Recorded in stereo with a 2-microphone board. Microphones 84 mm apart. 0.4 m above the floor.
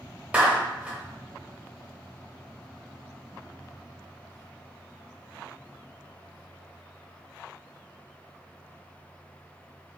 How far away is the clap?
About 1.0 m.